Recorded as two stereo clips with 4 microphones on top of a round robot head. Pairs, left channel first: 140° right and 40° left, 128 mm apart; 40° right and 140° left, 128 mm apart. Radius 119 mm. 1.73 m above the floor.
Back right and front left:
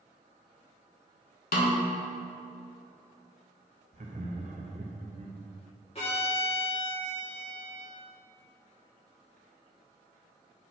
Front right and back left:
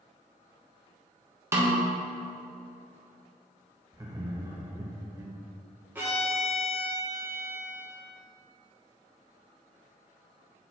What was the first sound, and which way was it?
A snare drum, 150° right.